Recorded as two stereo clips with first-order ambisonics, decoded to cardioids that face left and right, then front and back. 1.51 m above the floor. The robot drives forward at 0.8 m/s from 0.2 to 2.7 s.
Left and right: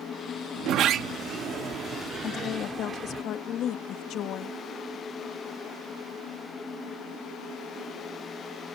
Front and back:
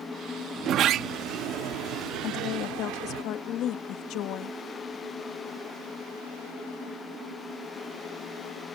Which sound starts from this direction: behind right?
A sliding door, at 0.6 s.